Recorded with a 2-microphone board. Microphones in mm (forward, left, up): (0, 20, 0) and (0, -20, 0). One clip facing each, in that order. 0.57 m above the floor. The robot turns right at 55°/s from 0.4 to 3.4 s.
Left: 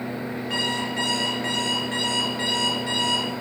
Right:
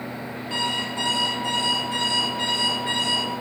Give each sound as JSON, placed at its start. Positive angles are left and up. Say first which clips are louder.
{"t": 0.5, "sound": "an alarm clock", "louder": "even", "azimuth_deg": 70, "distance_m": 3.0}